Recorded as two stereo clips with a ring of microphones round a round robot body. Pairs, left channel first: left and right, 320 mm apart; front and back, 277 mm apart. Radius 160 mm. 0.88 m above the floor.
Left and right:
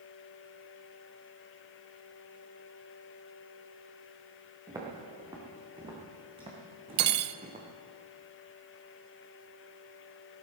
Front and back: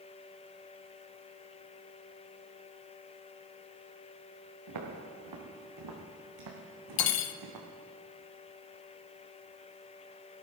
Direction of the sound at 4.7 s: 170° right.